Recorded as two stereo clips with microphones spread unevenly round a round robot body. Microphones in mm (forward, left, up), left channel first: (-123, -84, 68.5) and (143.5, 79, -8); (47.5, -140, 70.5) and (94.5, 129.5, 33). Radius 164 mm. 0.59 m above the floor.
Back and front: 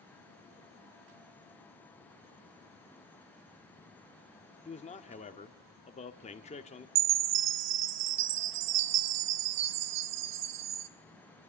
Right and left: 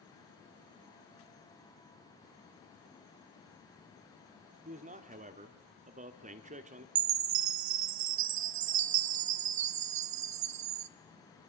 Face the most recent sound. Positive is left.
turn(degrees=65)